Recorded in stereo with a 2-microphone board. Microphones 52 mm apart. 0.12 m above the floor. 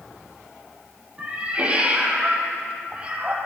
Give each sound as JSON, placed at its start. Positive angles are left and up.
{"t": 1.2, "sound": "a cat meowing", "side_deg": -25, "distance_m": 2.0}